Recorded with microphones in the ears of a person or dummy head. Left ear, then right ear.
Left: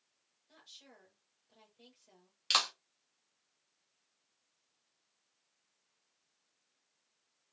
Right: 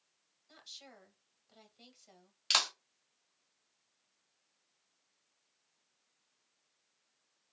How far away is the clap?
About 1.1 m.